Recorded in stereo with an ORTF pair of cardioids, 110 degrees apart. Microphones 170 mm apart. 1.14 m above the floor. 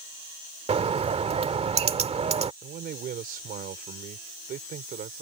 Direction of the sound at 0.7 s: 35° right.